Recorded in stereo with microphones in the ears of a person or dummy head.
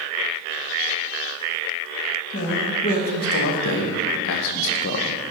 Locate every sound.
2.3 s a man speaking: 40° left (ahead or behind), 1.6 m; by 5.2 s 50° left (ahead or behind), 0.7 m